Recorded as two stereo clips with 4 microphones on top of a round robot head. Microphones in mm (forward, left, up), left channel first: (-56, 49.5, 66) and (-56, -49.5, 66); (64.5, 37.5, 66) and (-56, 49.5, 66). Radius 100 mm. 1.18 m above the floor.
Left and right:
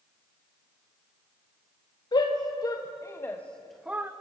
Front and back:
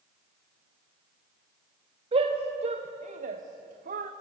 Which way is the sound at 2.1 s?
135° left.